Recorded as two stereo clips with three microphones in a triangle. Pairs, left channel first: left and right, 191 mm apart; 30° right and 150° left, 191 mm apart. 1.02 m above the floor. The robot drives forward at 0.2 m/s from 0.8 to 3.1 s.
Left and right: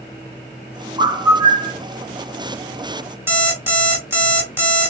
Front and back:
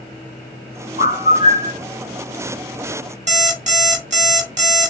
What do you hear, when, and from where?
1.0 s a bird: 20° right, 0.7 m; by 1.8 s 25° right, 0.6 m
3.3 s an alarm clock: 165° right, 0.9 m